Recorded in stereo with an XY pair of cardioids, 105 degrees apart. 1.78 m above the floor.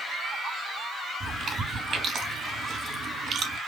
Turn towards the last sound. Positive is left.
turn(degrees=-55)